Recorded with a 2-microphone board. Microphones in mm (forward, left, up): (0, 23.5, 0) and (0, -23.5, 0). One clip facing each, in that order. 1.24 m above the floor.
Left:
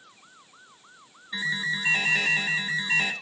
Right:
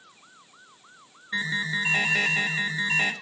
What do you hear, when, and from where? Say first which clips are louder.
1.3 s an alarm: right 1 dB; 40° right (ahead or behind), 2.5 m